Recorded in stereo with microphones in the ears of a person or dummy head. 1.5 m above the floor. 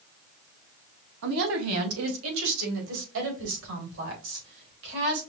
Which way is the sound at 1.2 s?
70° right (ahead or behind).